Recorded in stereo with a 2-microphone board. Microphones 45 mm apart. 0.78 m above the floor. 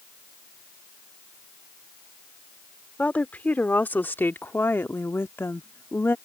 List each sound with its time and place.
3.0 s a woman speaking: 40° left (ahead or behind); by 6.2 s 65° left (ahead or behind)